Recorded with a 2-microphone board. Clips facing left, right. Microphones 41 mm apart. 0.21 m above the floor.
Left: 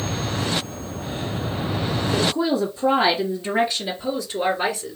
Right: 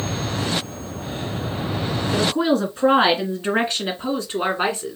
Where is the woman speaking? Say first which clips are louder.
Right 3 dB; 60° right (ahead or behind), 2.5 m; by 5.0 s 35° right (ahead or behind), 2 m.